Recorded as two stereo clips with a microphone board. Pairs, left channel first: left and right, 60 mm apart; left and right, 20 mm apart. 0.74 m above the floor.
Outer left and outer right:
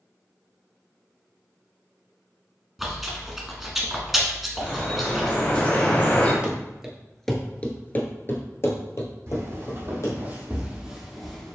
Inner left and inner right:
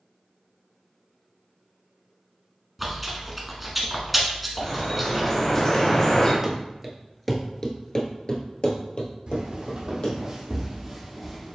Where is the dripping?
30° left (ahead or behind), 1.4 m.